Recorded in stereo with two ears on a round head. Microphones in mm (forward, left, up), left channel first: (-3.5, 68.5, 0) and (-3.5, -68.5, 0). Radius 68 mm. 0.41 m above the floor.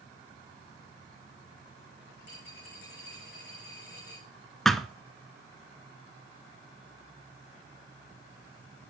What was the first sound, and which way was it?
A dropped coin, 75° left (ahead or behind).